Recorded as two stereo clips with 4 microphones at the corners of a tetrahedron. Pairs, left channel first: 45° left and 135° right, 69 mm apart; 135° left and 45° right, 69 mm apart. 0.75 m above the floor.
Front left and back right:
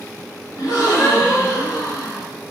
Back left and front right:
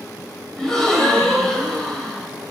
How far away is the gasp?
About 1.9 m.